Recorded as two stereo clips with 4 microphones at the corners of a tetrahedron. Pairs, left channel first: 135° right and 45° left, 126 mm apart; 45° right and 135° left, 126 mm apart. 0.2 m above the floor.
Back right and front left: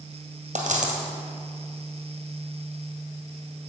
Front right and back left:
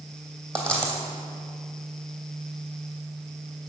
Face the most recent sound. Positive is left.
turn(degrees=35)